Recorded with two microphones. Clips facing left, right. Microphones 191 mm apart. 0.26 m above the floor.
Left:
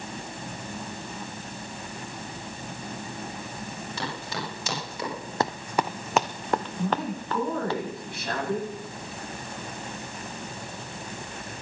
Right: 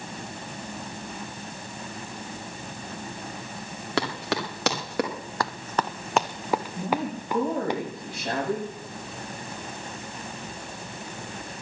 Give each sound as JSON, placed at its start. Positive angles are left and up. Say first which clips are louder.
{"t": 4.0, "sound": "running footsteps", "louder": "right 8 dB", "side_deg": -80, "distance_m": 5.5}
{"t": 5.4, "sound": "running footsteps", "louder": "left 2 dB", "side_deg": 25, "distance_m": 0.6}
{"t": 6.8, "sound": "a woman speaking", "louder": "even", "side_deg": -30, "distance_m": 9.5}